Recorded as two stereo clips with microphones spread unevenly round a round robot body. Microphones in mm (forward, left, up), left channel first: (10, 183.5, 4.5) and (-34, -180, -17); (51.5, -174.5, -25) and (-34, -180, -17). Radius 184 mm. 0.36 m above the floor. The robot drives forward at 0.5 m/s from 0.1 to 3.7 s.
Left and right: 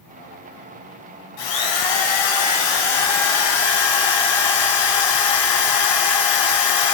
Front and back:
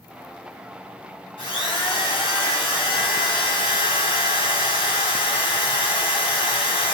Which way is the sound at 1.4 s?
80° left.